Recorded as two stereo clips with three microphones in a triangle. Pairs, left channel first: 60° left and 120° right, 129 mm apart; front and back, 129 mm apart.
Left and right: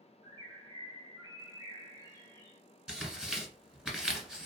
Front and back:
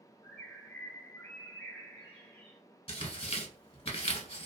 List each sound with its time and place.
0.2 s a bird: 75° right, 1.3 m
2.9 s tearing paper: 40° right, 0.8 m